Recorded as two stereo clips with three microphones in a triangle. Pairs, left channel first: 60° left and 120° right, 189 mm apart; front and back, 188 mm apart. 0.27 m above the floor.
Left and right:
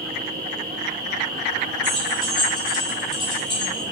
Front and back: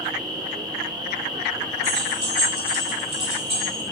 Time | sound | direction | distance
1.8 | keys jangling | 125° left | 2.5 m